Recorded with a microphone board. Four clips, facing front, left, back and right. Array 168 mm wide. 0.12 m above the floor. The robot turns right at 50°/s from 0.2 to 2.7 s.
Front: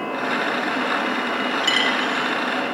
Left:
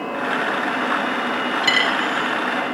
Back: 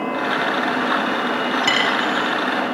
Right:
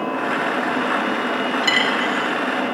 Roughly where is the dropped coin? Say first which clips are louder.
Even, back 3 dB; behind.